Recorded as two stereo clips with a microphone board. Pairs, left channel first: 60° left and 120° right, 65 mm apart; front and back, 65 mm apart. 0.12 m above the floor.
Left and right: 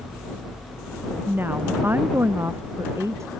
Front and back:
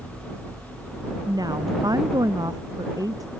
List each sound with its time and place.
1.3 s a woman speaking: straight behind; by 3.3 s 160° right